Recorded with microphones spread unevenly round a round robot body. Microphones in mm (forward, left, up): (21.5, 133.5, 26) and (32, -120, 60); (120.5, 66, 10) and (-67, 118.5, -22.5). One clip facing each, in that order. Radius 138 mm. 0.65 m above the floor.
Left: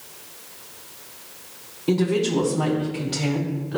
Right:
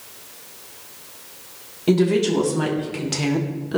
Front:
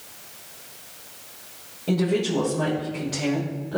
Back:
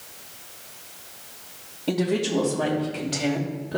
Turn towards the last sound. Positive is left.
turn(degrees=-125)